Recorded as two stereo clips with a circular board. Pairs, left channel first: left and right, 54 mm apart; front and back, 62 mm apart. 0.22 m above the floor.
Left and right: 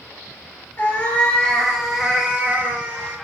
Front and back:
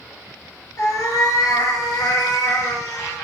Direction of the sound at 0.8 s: 35° left.